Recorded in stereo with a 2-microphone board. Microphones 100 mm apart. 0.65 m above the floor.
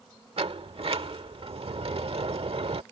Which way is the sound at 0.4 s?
75° right (ahead or behind).